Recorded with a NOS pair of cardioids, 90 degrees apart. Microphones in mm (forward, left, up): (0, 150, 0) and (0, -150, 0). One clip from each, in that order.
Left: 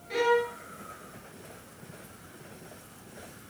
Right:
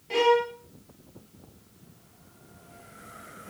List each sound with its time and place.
0.1 s a violin: 25° right, 3.5 m